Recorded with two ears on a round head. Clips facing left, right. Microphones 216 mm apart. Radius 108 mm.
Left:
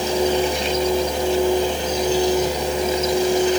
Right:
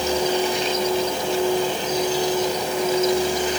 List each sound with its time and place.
Only background noise.